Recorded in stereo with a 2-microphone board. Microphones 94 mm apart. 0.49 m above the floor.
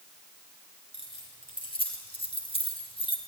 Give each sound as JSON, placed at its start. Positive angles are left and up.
{"t": 0.9, "sound": "keys jangling", "side_deg": 85, "distance_m": 5.5}